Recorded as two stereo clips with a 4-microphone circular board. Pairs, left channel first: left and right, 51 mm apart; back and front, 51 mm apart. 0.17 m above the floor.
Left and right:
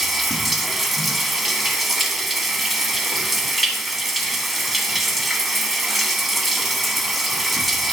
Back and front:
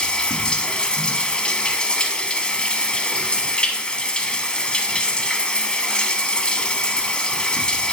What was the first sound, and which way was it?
Running water, straight behind.